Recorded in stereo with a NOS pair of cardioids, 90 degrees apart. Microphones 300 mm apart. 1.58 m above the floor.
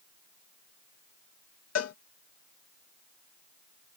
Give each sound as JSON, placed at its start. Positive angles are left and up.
{"t": 1.8, "sound": "a cowbell", "azimuth_deg": 60}